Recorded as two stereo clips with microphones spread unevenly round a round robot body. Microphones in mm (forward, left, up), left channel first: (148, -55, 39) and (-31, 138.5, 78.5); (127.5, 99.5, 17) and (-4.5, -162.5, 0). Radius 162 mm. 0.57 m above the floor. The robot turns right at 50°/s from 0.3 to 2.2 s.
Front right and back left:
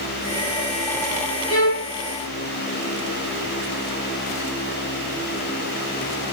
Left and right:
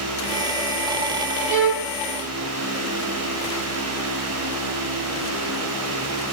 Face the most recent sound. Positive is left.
turn(degrees=-85)